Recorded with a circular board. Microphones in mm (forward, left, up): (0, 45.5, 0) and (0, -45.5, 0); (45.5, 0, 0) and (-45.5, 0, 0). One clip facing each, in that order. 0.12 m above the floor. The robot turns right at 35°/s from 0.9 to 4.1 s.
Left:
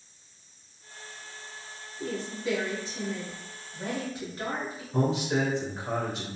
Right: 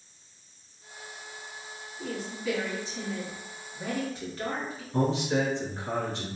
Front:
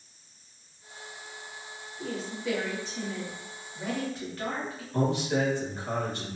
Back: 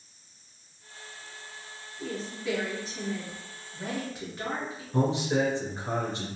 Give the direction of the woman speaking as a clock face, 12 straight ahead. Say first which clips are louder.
Left 2 dB, front 1 dB; 9 o'clock.